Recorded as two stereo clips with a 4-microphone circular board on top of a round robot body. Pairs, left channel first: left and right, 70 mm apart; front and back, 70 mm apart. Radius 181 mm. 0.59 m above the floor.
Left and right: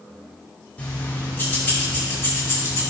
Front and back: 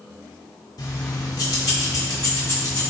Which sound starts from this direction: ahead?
Keys jangling, at 0.8 s.